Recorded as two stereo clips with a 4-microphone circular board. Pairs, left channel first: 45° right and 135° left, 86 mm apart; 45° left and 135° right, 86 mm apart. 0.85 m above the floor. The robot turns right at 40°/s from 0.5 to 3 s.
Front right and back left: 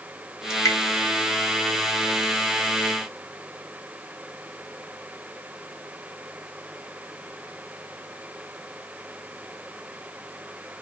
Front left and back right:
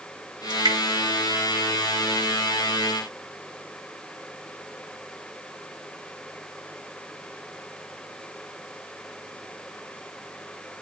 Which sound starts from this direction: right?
Dripping, at 0.5 s.